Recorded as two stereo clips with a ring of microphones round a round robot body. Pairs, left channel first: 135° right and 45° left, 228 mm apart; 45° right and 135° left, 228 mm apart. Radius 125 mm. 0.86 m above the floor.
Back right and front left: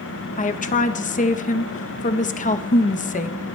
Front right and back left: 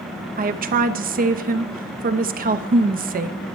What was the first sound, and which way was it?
A woman speaking, 175° left.